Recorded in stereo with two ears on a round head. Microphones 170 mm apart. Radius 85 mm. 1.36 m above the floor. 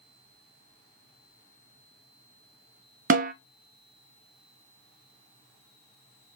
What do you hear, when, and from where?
3.1 s a snare drum: 45° right (ahead or behind), 0.6 m